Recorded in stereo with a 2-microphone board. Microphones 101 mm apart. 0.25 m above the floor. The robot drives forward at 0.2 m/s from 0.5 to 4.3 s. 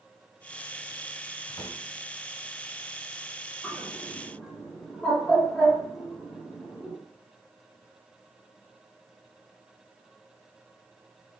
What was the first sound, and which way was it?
A drawer, 45° left (ahead or behind).